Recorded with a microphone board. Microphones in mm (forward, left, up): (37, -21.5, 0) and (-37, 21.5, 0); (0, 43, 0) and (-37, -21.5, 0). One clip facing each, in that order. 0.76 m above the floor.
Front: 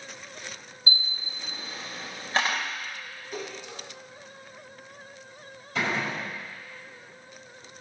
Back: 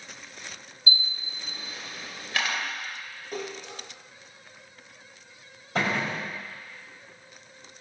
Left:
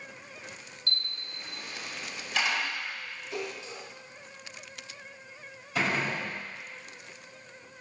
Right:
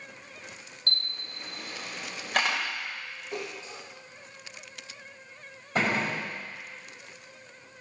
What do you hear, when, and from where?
0.9 s a camera shutter: 90° right, 2 m
3.3 s a splash: 170° right, 5.5 m
5.8 s a gunshot: 165° right, 5 m